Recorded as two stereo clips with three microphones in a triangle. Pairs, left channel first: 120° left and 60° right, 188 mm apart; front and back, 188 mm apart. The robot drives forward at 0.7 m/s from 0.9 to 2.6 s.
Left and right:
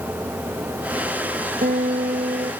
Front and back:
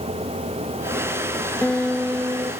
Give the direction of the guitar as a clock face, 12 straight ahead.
3 o'clock.